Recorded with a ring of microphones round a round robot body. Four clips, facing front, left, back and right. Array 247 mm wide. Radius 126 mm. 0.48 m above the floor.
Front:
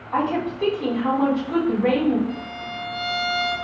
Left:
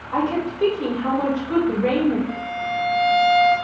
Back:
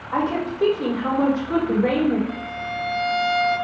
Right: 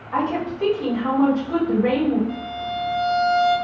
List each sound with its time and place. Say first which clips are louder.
0.1 s a woman speaking: left 1 dB, even; 150° left, 1.5 m
2.3 s a violin: left 2 dB, back 2 dB; 105° left, 1.3 m